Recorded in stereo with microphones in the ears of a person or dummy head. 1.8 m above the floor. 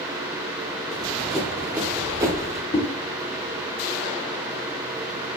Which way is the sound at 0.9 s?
5° left (ahead or behind).